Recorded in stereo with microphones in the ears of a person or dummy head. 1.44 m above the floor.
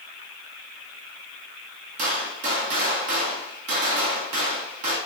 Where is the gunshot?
40° right (ahead or behind), 0.6 m.